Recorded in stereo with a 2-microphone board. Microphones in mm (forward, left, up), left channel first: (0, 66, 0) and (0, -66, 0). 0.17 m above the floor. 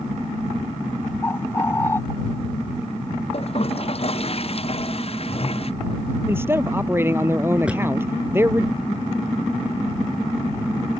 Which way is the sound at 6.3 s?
15° right (ahead or behind).